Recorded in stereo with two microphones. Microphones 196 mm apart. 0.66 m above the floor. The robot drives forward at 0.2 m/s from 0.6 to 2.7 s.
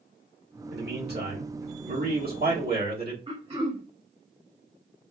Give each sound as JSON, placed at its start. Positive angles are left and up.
{"t": 0.7, "sound": "a man speaking", "side_deg": -55, "distance_m": 1.4}
{"t": 3.3, "sound": "throat clearing", "side_deg": -30, "distance_m": 1.5}